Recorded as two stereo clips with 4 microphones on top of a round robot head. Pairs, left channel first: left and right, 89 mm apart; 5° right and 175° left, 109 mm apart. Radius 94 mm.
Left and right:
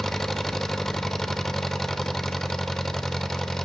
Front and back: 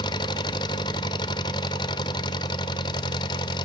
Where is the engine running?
5° left, 1.0 m.